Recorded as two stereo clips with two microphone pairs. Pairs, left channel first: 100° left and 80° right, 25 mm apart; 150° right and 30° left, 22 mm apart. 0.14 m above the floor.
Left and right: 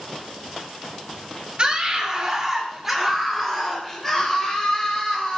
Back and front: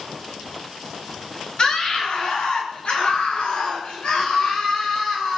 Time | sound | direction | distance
1.6 | a scream | 115° right | 2.5 m